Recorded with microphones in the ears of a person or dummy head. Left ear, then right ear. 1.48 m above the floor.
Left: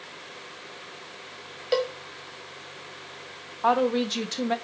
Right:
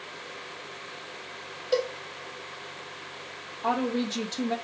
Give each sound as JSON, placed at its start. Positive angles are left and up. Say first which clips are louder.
{"t": 1.7, "sound": "a cowbell", "louder": "left 1 dB", "side_deg": 20, "distance_m": 0.8}
{"t": 3.6, "sound": "a woman speaking", "louder": "left 5 dB", "side_deg": 70, "distance_m": 1.8}